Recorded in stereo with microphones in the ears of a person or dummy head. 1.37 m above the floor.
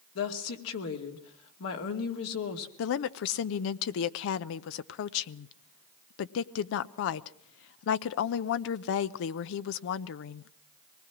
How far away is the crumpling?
I don't hear crumpling.